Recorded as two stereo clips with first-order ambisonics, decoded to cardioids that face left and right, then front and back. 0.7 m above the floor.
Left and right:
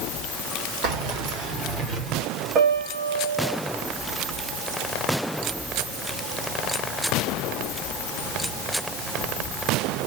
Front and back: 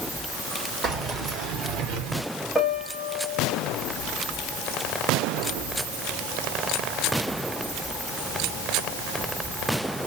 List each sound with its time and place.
0.8 s keys jangling: 120° right, 1.9 m; by 2.2 s 165° right, 1.7 m
2.5 s a piano: 95° right, 1.0 m